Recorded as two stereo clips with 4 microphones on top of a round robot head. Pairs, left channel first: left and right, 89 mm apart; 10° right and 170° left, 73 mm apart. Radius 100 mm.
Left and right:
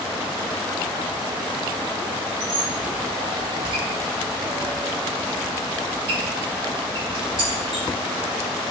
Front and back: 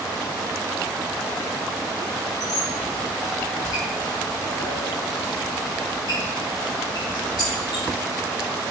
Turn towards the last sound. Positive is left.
turn(degrees=-55)